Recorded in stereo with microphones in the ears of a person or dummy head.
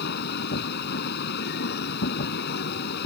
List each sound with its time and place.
0.0 s a machine running: 50° left (ahead or behind)